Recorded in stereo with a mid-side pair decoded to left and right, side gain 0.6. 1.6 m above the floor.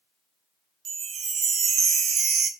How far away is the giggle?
No giggle in this recording.